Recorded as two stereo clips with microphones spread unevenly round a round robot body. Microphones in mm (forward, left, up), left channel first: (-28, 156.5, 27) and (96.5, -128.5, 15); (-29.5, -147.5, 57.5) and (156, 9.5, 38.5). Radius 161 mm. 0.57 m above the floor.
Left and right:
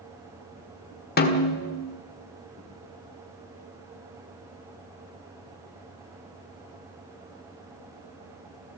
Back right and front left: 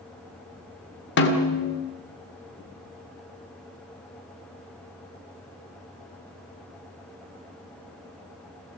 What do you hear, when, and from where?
1.2 s a snare drum: 175° left, 1.7 m